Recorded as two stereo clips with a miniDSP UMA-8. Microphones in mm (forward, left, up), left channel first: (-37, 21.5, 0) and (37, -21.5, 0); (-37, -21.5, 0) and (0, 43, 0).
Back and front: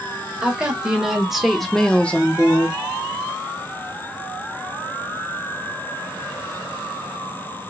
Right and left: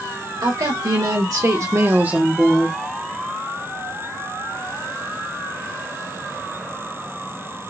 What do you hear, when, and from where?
0.4 s a woman speaking: 45° left, 1.9 m; by 2.8 s 175° right, 0.9 m